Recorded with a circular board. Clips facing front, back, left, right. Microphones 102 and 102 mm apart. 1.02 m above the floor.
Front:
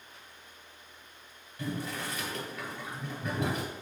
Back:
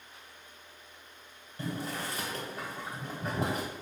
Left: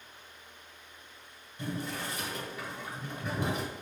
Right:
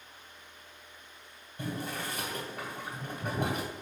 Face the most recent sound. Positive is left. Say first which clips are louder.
# even, even
turn(degrees=-130)